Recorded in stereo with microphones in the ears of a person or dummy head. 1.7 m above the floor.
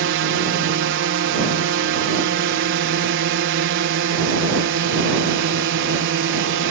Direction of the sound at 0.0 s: 60° right (ahead or behind).